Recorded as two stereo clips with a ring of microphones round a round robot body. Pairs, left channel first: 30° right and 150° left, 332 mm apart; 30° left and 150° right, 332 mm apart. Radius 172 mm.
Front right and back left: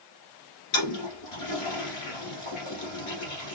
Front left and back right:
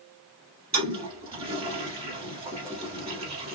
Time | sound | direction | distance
0.7 | a toilet flushing | 75° right | 3.5 m